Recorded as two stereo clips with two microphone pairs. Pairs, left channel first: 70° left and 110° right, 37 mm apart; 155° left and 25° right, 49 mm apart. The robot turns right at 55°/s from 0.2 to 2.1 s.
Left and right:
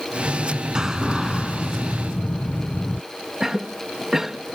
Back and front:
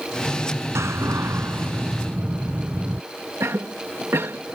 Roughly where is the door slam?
Ahead right.